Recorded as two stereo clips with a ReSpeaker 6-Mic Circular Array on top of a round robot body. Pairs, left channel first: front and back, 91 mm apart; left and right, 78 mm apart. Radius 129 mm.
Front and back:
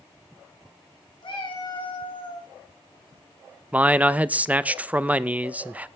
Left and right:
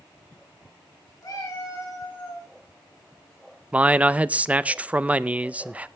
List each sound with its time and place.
1.2 s a cat meowing: 40° left, 3 m; by 2.5 s 30° left, 2.5 m
3.7 s a man speaking: 130° right, 0.7 m